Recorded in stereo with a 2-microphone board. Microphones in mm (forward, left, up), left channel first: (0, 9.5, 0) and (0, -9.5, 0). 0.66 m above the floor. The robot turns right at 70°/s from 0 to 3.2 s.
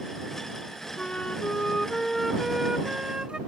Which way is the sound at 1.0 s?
90° left.